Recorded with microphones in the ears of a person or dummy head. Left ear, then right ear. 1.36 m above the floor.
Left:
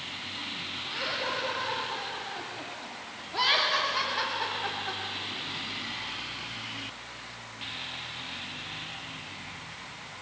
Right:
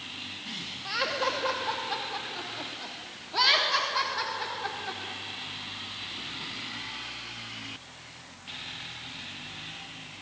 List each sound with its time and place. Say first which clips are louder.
0.8 s laughter: right 4 dB; 65° right (ahead or behind), 2 m; by 5.0 s 5° right (ahead or behind), 3.5 m